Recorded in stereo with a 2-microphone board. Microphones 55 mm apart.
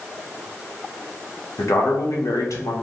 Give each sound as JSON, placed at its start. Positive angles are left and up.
{"t": 1.6, "sound": "a man speaking", "side_deg": 75, "distance_m": 1.1}